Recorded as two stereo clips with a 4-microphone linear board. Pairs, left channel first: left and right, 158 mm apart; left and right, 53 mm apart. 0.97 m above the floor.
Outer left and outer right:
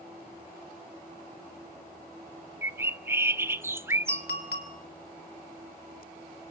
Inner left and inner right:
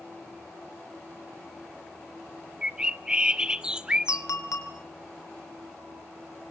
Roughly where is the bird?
Centre.